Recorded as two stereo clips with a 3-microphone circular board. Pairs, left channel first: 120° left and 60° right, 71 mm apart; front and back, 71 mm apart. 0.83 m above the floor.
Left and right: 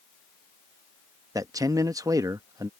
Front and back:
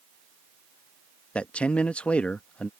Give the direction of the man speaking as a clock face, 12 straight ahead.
2 o'clock.